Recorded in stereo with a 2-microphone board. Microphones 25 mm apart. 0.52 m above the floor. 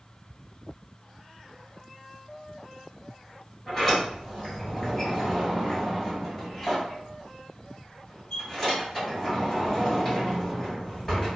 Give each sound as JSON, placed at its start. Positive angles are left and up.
{"t": 3.7, "sound": "a sliding door", "side_deg": 15, "distance_m": 1.7}